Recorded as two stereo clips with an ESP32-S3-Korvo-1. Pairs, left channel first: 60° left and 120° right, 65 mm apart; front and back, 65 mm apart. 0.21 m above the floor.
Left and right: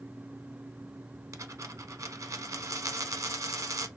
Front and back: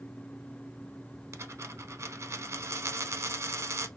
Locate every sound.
1.3 s a dropped coin: 145° right, 0.6 m